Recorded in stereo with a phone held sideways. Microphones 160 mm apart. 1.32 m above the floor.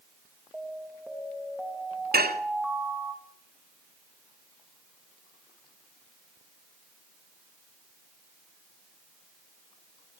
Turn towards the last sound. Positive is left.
turn(degrees=-75)  # may be behind; listen again after turning